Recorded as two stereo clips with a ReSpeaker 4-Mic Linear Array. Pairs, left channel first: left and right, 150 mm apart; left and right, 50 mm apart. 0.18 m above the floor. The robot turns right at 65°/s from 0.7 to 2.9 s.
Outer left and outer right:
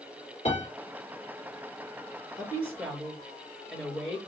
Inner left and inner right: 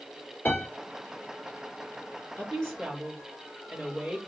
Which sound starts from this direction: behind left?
A woman speaking, at 2.4 s.